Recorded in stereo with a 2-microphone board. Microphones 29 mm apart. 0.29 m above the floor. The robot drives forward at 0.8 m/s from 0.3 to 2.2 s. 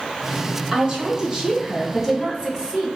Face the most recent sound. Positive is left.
turn(degrees=-15)  # may be behind; listen again after turning